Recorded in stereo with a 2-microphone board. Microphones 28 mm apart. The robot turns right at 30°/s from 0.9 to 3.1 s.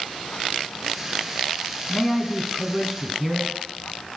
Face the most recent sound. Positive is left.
turn(degrees=-175)